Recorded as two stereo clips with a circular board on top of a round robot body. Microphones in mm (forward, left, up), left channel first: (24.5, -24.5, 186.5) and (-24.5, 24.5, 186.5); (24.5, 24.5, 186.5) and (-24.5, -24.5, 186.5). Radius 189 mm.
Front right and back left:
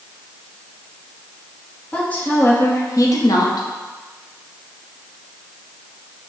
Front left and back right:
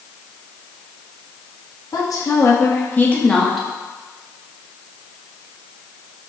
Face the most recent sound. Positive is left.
turn(degrees=-45)